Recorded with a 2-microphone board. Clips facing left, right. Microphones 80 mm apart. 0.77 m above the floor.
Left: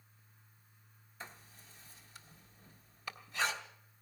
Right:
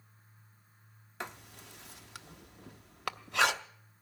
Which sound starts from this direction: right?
Writing, at 1.2 s.